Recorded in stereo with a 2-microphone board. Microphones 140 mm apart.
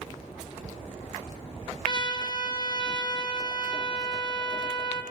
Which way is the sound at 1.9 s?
35° left (ahead or behind).